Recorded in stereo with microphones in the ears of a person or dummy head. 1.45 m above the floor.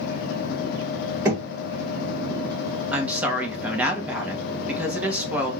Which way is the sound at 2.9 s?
10° right (ahead or behind).